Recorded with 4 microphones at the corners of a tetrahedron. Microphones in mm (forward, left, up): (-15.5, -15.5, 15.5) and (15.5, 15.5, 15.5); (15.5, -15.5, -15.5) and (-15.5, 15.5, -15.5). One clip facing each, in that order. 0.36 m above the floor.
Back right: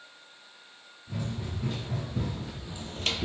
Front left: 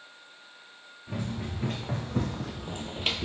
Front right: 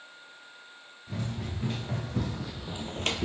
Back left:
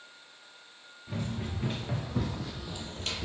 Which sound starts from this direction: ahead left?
Running footsteps, at 1.1 s.